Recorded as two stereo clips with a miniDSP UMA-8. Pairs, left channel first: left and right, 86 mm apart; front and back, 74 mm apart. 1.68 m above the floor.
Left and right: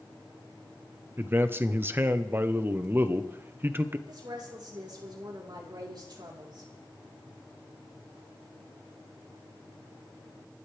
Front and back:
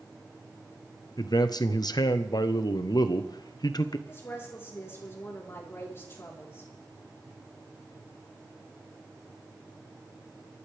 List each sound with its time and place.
1.2 s a man speaking: 25° right, 1.0 m
4.1 s a woman speaking: 55° right, 4 m